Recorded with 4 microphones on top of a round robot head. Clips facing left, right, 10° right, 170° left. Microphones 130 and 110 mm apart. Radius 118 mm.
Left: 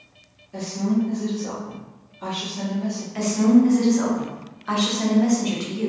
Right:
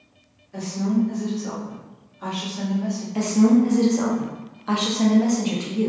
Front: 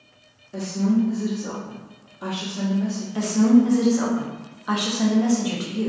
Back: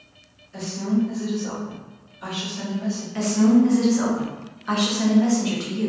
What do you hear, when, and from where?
0.5 s a woman speaking: 15° left, 0.9 m
3.1 s a woman speaking: 65° right, 0.8 m